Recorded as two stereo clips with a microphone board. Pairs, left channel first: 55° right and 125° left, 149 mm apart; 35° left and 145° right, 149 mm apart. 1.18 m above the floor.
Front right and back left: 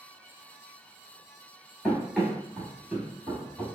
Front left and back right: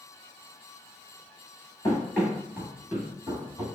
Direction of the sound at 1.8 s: 35° left.